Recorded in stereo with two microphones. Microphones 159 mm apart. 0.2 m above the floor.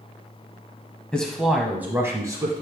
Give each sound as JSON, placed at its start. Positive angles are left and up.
{"t": 1.1, "sound": "a man speaking", "side_deg": 5, "distance_m": 1.2}